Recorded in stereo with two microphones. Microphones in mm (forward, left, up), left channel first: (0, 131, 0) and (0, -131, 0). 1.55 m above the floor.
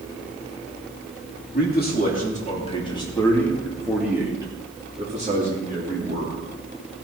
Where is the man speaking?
35° left (ahead or behind), 3 m; by 6.4 s 40° right (ahead or behind), 3.5 m.